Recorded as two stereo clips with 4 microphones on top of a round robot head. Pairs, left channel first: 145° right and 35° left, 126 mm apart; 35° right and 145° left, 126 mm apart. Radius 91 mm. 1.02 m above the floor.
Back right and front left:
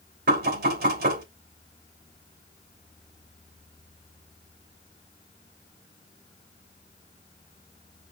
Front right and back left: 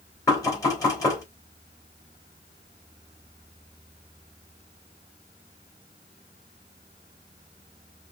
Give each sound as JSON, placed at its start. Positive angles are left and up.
{"t": 0.3, "sound": "knocking", "azimuth_deg": 35, "distance_m": 3.0}